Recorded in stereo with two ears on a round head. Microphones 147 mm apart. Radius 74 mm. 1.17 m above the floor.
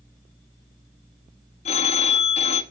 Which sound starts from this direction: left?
A phone ringing, at 1.6 s.